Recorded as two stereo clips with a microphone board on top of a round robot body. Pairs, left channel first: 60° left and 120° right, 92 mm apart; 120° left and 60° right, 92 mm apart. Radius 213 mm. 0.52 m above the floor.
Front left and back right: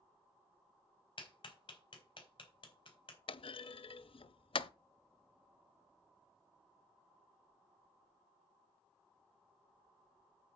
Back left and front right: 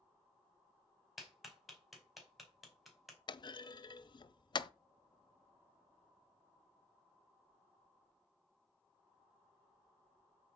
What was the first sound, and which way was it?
A clap, 30° left.